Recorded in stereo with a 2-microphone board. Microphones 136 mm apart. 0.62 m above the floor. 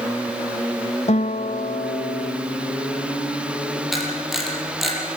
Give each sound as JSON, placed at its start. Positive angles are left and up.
{"t": 1.1, "sound": "a guitar", "side_deg": 55, "distance_m": 0.6}
{"t": 3.9, "sound": "a camera shutter", "side_deg": 0, "distance_m": 6.0}